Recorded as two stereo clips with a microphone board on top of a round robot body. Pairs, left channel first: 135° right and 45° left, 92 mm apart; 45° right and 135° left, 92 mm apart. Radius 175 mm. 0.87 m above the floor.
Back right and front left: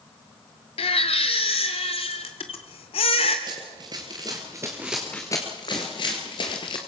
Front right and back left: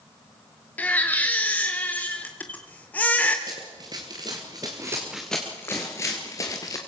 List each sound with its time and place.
0.8 s a baby crying: 120° right, 0.8 m
3.5 s running footsteps: 90° left, 1.1 m; by 6.8 s 100° right, 1.2 m